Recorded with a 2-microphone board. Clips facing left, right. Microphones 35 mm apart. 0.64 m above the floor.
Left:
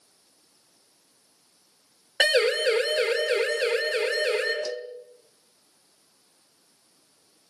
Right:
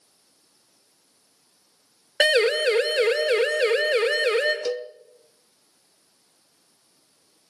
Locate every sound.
2.2 s a siren: 20° right (ahead or behind), 3.5 m; by 4.5 s 45° right (ahead or behind), 4.5 m
4.7 s a cowbell: 65° right (ahead or behind), 0.7 m